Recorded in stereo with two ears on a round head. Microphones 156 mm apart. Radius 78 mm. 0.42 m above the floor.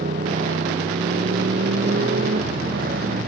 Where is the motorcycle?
45° right (ahead or behind); by 3.3 s 55° right (ahead or behind).